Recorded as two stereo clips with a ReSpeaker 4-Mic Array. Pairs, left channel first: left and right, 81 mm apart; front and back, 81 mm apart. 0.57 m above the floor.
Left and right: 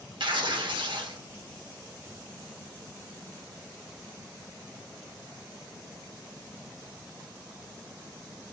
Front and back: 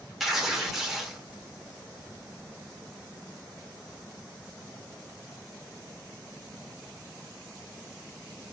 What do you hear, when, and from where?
0.2 s tearing paper: 95° right, 0.6 m